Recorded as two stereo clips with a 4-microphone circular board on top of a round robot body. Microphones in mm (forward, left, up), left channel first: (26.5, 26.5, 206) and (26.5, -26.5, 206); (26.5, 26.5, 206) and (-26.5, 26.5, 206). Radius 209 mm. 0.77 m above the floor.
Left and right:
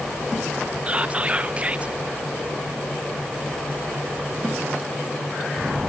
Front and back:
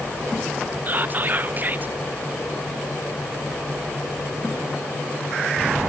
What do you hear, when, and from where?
0.9 s whispering: 145° right, 0.6 m